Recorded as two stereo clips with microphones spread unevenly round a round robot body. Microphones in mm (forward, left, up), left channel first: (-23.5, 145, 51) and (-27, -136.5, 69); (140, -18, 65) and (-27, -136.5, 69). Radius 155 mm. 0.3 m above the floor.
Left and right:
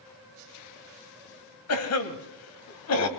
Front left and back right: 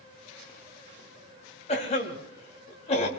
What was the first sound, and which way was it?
A cough, 90° left.